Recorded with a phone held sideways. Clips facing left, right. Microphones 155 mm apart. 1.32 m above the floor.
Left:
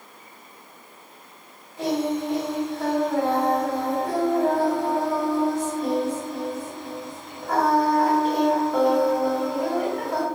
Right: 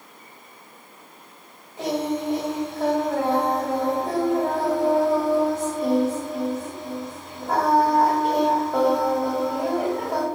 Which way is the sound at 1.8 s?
20° right (ahead or behind).